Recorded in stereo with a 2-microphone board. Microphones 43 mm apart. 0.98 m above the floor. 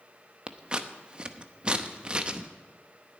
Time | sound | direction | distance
0.5 | scissors | 25° right (ahead or behind) | 0.7 m